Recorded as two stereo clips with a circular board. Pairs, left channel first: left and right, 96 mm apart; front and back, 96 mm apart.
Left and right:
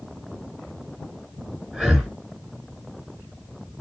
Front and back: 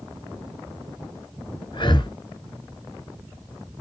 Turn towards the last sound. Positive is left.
turn(degrees=-10)